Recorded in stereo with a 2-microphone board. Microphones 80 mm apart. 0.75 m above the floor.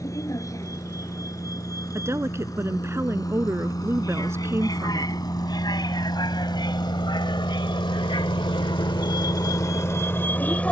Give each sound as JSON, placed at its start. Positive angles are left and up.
{"t": 0.0, "sound": "a vehicle", "side_deg": 40}
{"t": 1.9, "sound": "a woman speaking", "side_deg": -35}